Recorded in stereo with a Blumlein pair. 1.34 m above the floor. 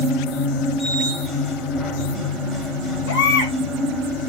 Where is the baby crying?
55° left, 2.5 m.